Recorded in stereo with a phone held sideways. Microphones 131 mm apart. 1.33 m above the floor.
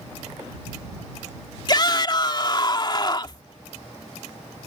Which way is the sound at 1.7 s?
40° left (ahead or behind).